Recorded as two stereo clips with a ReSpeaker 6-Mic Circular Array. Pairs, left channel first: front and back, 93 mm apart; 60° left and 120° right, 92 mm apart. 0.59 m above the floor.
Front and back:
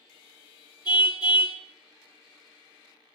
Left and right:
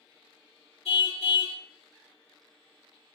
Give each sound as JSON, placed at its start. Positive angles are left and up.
{"t": 0.8, "sound": "a car horn", "azimuth_deg": 45, "distance_m": 4.0}